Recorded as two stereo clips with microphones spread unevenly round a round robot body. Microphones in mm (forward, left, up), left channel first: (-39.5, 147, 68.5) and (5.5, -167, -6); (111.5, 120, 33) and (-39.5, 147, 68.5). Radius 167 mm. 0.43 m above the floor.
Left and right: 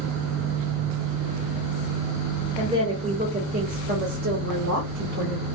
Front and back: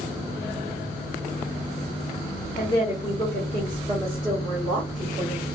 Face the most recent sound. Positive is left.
turn(degrees=-130)